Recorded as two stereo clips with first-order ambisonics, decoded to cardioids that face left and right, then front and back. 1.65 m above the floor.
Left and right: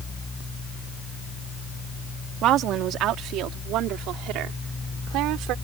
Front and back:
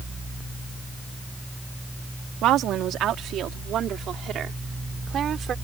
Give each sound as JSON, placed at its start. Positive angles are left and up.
{"t": 2.4, "sound": "a woman speaking", "azimuth_deg": -135}